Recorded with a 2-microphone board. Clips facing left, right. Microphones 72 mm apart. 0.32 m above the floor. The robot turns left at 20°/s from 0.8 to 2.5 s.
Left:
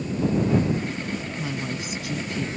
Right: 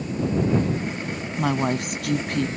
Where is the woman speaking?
65° right (ahead or behind).